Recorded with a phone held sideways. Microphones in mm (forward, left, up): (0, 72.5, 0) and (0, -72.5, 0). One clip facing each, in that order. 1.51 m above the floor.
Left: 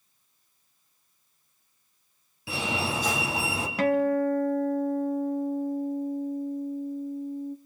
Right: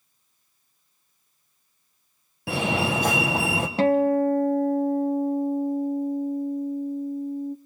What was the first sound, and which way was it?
A fire alarm, 60° right (ahead or behind).